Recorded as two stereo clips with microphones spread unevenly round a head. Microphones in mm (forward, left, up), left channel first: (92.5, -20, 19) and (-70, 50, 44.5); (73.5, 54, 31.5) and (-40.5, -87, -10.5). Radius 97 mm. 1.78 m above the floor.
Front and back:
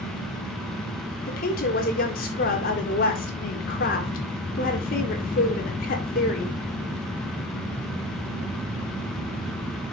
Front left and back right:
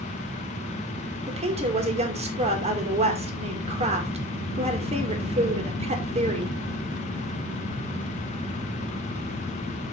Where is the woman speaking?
70° right, 2.5 m.